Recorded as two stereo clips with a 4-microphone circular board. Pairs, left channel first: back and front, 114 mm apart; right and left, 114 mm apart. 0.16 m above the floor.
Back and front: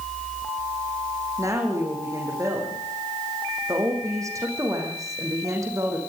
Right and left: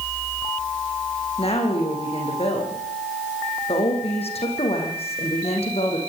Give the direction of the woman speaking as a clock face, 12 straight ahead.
2 o'clock.